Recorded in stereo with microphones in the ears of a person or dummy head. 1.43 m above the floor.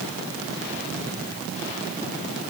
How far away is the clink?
No clink in this recording.